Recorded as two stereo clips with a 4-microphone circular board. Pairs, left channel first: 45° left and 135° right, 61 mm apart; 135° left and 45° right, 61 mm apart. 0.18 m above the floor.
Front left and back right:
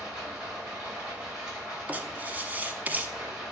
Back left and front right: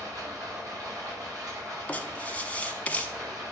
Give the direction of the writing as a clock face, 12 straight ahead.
6 o'clock.